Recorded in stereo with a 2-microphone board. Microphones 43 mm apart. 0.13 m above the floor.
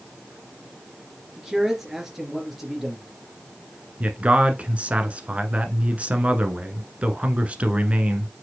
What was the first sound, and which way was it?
A man speaking, 10° right (ahead or behind).